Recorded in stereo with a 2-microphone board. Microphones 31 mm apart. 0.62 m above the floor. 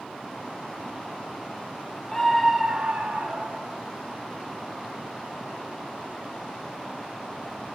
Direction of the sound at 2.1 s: 15° left (ahead or behind).